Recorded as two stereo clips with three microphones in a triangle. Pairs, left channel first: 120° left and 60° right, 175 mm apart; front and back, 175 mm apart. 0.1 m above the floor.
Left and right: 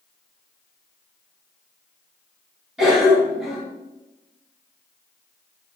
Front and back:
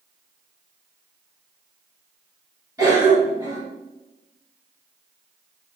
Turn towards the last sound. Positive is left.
turn(degrees=-145)